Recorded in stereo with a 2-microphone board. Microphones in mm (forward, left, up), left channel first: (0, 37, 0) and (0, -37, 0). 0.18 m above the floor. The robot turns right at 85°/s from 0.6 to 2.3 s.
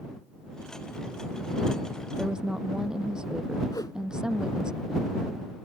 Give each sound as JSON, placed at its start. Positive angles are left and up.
{"t": 2.2, "sound": "a woman speaking", "side_deg": 0}
{"t": 3.7, "sound": "a whoosh", "side_deg": 65}